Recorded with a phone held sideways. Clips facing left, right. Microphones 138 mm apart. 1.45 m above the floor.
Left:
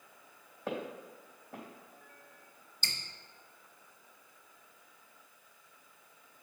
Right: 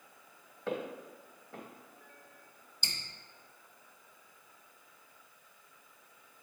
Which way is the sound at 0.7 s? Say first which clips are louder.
Right 1 dB; 10° left (ahead or behind).